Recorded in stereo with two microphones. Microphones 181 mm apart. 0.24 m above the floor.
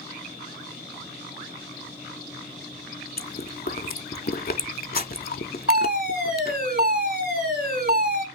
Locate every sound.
3.2 s chewing: 60° left (ahead or behind), 0.6 m
5.7 s a fire alarm: 55° right (ahead or behind), 4 m